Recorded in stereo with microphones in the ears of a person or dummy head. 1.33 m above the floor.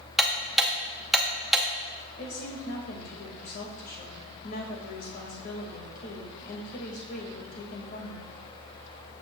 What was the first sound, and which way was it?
Ticking, centre (ahead or behind).